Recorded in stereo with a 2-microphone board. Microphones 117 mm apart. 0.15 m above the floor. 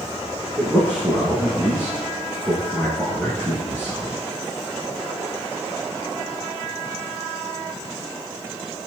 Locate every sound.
0.6 s a man speaking: 10° right (ahead or behind), 7 m